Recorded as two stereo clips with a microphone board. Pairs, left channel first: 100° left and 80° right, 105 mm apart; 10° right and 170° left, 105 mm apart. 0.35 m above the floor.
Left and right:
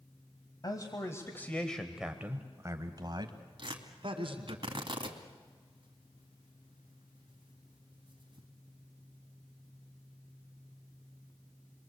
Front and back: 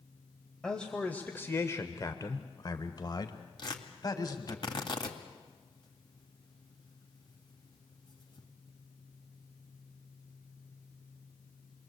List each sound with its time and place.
0.6 s a man speaking: 70° left, 1.7 m; by 4.6 s 60° right, 3 m
3.6 s tearing paper: 50° right, 2 m